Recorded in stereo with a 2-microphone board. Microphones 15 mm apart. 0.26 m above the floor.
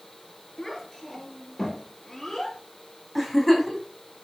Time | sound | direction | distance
0.6 | a child speaking | 20° left (ahead or behind) | 3.5 m
3.1 | a giggle | centre (ahead or behind) | 3 m